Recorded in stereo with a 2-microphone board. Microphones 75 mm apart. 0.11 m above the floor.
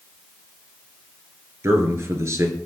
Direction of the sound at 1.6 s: 40° right (ahead or behind).